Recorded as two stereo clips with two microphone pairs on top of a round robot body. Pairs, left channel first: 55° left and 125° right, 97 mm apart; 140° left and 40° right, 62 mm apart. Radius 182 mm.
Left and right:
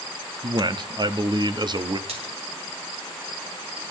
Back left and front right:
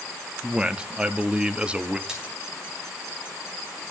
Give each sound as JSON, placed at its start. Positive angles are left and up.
{"t": 0.4, "sound": "a man speaking", "azimuth_deg": -115, "distance_m": 1.0}
{"t": 2.1, "sound": "a splash", "azimuth_deg": -120, "distance_m": 3.5}